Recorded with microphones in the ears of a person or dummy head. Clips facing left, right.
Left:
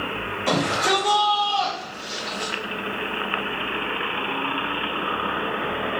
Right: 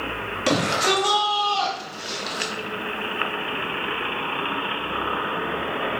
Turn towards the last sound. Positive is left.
turn(degrees=-75)  # may be behind; listen again after turning